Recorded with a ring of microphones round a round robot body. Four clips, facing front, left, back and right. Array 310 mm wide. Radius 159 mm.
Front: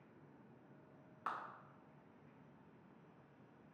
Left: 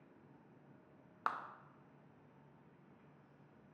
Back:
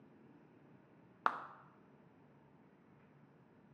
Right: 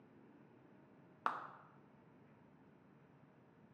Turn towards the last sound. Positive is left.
turn(degrees=-175)